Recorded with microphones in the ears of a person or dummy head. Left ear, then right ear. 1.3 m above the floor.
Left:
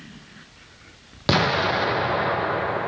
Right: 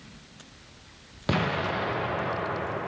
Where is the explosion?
30° left (ahead or behind), 0.6 m.